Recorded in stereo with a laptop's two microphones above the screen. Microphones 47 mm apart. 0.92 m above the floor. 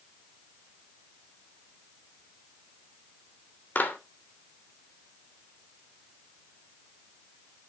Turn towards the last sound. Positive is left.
turn(degrees=40)  # may be behind; listen again after turning